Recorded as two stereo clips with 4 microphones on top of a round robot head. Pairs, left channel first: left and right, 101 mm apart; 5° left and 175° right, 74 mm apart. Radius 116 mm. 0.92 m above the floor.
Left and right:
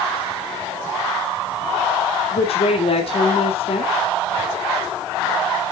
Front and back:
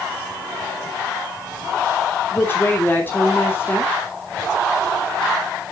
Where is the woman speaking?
75° left, 3 m.